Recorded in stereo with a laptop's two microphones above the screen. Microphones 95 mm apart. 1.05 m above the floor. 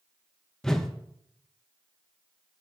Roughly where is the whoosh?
Centre.